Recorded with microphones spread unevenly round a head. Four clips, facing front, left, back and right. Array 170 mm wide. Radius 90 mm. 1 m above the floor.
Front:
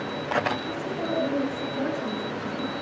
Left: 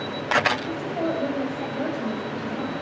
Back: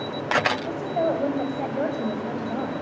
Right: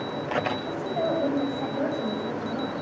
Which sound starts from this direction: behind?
A woman speaking, at 0.6 s.